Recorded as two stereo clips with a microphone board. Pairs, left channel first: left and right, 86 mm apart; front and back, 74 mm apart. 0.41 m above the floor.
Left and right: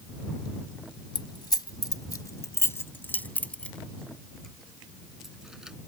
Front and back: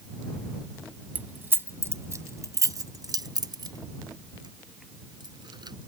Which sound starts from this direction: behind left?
Keys jangling, at 1.1 s.